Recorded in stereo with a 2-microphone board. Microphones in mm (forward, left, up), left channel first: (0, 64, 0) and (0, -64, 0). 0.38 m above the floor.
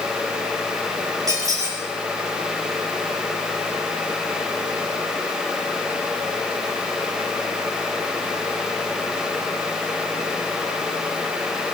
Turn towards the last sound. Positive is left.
turn(degrees=-25)  # may be behind; listen again after turning